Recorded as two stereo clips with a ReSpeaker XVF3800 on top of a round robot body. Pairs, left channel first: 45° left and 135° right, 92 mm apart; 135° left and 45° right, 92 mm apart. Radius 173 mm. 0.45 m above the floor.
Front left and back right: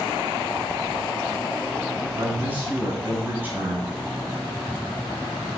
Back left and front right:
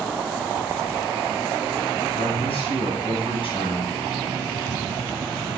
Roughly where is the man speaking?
Behind left.